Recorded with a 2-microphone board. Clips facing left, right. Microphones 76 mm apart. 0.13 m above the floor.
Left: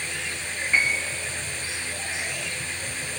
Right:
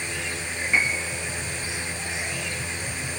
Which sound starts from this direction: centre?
A piano, at 0.7 s.